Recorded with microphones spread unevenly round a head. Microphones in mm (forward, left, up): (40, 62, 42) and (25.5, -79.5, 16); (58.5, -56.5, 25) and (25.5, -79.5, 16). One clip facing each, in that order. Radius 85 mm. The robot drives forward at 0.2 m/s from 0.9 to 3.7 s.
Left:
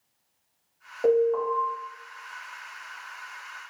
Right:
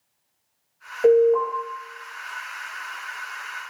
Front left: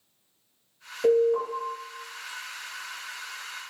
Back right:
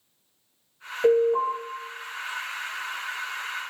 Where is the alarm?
140° right, 1.3 m; by 1.5 s 145° right, 1.3 m.